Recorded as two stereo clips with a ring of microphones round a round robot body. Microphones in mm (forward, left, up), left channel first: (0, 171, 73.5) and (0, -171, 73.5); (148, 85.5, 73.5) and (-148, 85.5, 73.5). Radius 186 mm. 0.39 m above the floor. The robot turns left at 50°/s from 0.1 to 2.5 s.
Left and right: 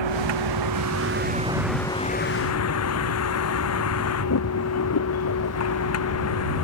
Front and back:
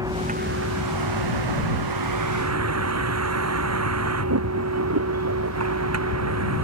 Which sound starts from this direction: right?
A vehicle, at 0.0 s.